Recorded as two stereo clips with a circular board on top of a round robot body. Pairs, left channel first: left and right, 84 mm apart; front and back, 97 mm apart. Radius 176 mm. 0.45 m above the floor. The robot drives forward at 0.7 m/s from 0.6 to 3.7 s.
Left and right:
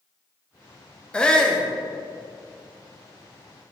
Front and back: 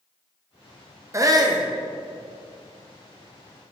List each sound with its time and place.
1.1 s a shout: 155° left, 0.8 m; by 1.7 s 170° left, 1.0 m